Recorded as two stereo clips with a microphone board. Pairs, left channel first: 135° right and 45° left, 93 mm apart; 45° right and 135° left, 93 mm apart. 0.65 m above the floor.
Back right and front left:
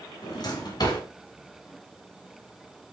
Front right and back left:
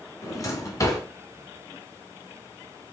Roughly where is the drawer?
Right.